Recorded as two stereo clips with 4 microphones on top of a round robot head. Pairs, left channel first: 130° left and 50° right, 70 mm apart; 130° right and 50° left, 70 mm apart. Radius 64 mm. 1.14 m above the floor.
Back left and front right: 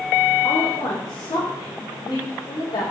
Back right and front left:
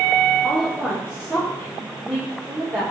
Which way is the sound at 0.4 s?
145° left.